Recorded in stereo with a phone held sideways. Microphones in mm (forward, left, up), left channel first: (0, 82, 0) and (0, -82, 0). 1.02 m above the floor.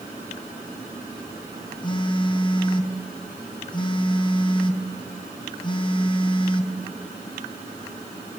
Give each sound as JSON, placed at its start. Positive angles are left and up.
{"t": 1.8, "sound": "a phone buzzing", "side_deg": 30, "distance_m": 0.5}